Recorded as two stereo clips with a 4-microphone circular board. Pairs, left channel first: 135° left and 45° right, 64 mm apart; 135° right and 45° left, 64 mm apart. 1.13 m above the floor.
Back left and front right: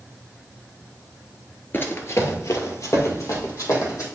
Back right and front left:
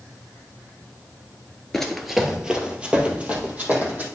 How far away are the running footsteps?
About 1.2 m.